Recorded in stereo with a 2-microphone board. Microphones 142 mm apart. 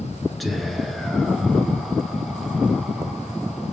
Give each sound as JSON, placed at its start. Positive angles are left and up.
{"t": 0.4, "sound": "whispering", "side_deg": 0, "distance_m": 1.1}